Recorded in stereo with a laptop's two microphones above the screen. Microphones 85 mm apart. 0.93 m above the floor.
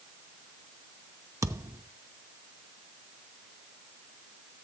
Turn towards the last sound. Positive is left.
turn(degrees=-35)  # may be behind; listen again after turning